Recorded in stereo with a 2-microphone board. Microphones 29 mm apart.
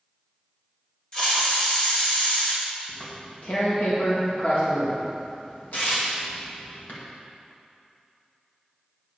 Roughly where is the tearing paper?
Left.